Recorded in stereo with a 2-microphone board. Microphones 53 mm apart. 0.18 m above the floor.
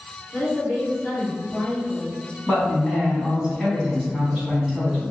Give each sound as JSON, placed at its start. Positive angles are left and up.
{"t": 0.3, "sound": "a woman speaking", "side_deg": -15, "distance_m": 1.8}
{"t": 2.5, "sound": "a man speaking", "side_deg": -5, "distance_m": 1.0}